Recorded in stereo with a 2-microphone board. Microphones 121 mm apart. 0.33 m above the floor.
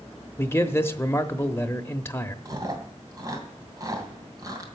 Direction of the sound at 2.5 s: 30° right (ahead or behind).